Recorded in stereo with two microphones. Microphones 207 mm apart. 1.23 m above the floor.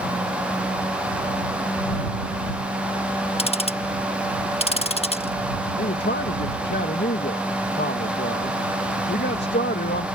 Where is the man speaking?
55° left (ahead or behind).